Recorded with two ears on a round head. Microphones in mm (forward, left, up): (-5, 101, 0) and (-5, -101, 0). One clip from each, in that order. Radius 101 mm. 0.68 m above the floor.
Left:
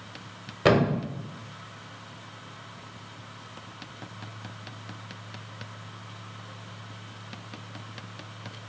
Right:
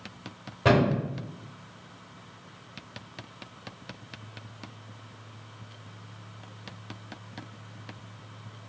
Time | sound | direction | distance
0.7 | a thud | 50° left (ahead or behind) | 1.0 m